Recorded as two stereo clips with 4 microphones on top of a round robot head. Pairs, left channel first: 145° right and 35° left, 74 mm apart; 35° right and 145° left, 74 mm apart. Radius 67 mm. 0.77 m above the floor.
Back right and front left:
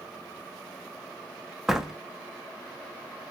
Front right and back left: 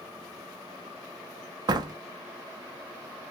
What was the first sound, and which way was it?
A door slam, 120° left.